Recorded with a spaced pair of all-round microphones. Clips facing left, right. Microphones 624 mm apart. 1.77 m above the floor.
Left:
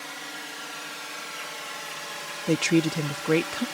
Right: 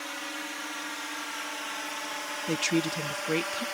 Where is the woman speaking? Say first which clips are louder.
Left 6 dB; 75° left (ahead or behind).